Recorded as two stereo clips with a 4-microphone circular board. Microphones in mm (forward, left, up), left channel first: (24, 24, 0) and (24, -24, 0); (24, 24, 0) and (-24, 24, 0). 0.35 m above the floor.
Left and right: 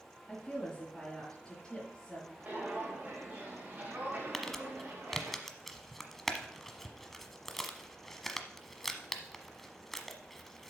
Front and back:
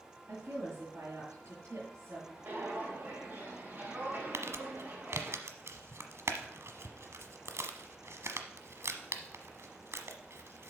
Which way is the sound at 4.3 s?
175° left.